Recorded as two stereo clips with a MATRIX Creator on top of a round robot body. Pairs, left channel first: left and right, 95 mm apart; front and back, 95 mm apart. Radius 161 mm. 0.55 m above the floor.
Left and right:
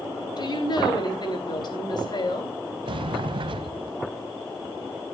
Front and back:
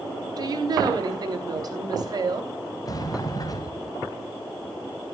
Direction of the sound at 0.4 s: 135° left.